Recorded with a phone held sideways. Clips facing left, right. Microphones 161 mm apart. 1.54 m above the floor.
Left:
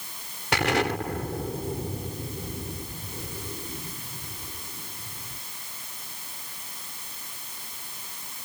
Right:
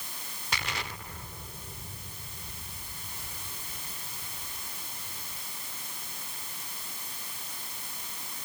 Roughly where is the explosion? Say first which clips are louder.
Left 14 dB; left.